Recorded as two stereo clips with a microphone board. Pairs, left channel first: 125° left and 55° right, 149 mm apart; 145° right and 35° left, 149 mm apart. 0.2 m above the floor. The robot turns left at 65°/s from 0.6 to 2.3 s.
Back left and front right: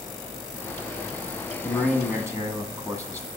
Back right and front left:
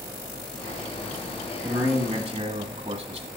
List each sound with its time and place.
1.6 s a man speaking: 50° left, 1.7 m; by 3.3 s 10° left, 1.7 m